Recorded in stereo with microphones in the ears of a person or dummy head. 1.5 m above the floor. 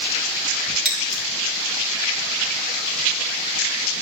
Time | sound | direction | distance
0.8 | scissors | centre (ahead or behind) | 3.5 m